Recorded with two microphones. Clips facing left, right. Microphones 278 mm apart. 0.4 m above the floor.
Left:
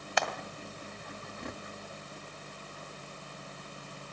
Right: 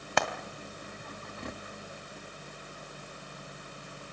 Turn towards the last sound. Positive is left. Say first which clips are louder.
# right 3 dB
turn(degrees=-60)  # may be behind; listen again after turning